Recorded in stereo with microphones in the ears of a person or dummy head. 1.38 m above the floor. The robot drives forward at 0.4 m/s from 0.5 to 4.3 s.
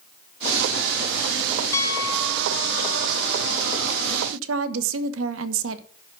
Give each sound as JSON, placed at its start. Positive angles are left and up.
{"t": 1.7, "sound": "a piano", "side_deg": 20, "distance_m": 0.9}
{"t": 4.3, "sound": "a woman speaking", "side_deg": -80, "distance_m": 1.3}